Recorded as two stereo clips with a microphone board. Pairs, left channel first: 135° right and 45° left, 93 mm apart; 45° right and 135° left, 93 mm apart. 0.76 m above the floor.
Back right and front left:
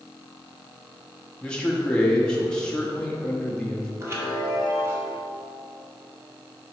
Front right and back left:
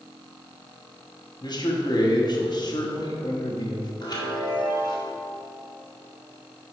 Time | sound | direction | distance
1.4 | a man speaking | 60° right | 1.0 m
4.0 | a chime | 10° right | 1.6 m